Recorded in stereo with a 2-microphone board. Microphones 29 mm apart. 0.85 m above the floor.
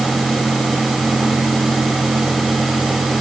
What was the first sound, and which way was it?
Only background noise.